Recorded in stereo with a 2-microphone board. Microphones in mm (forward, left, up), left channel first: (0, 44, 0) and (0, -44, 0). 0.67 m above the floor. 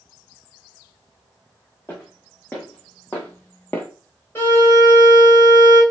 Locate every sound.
1.9 s footsteps: 20° left (ahead or behind), 2.5 m; by 3.9 s 25° left (ahead or behind), 0.7 m
4.3 s a violin: 30° left (ahead or behind), 2.5 m